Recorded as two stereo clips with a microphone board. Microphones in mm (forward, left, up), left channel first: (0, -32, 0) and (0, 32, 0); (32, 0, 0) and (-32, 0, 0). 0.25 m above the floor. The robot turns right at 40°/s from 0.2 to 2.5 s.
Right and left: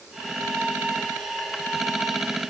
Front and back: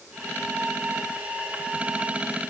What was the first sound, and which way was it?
Only background noise.